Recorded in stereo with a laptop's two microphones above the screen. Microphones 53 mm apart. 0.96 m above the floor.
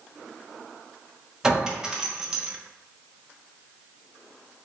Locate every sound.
1.4 s a clink: 10° right (ahead or behind), 0.7 m